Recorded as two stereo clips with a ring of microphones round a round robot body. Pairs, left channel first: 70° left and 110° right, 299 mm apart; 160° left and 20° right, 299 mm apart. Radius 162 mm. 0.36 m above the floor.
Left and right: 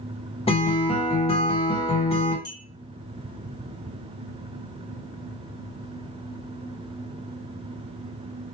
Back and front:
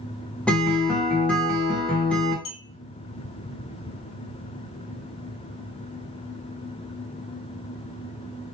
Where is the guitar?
80° left, 1.3 m.